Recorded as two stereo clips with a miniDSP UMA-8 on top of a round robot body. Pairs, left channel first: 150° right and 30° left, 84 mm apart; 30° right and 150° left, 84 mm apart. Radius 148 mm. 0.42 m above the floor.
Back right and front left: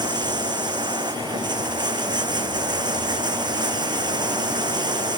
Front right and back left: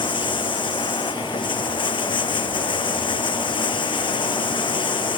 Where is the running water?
5° right.